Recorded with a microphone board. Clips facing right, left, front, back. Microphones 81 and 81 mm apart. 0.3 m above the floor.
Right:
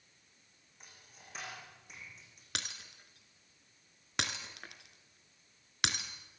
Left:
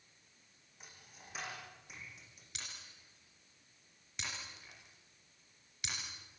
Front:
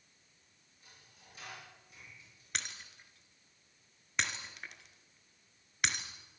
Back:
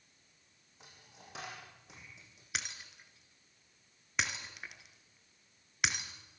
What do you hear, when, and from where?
0.8 s a dropped coin: 175° left, 8.5 m
2.5 s breaking glass: 95° right, 2 m